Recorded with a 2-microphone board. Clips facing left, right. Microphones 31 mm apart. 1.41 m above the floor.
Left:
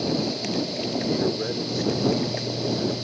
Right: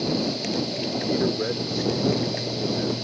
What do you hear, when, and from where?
1.1 s a man speaking: 10° right (ahead or behind); by 2.9 s 20° right (ahead or behind)